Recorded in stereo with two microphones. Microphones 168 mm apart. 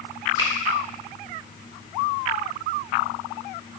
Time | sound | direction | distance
0.4 | a finger snap | 30° left (ahead or behind) | 1.8 m